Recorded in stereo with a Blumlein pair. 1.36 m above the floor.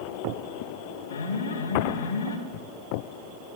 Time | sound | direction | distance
1.1 | an alarm | 65° left | 4 m